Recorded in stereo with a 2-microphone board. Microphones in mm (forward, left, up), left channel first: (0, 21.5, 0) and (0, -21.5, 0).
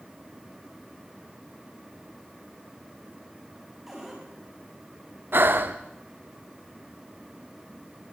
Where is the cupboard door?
5° right (ahead or behind), 8.5 m.